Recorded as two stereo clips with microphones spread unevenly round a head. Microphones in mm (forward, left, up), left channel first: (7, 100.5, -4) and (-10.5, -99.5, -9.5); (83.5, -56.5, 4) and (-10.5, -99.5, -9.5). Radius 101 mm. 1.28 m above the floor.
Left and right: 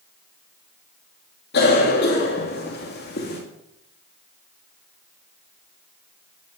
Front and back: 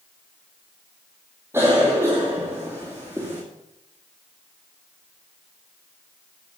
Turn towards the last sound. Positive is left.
turn(degrees=125)